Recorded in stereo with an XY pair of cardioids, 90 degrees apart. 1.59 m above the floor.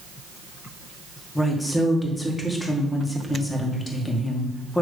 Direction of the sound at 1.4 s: 25° left.